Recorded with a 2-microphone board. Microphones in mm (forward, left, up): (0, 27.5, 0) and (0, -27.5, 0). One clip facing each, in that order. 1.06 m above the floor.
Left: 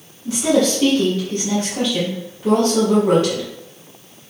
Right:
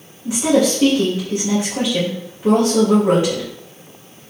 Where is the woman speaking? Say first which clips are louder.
Right 1 dB; 20° right (ahead or behind), 1.9 m.